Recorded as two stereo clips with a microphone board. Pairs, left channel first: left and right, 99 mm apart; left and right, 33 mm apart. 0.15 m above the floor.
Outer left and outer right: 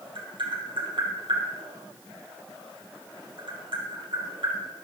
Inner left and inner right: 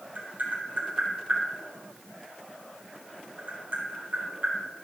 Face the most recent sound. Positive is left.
turn(degrees=-55)  # may be behind; listen again after turning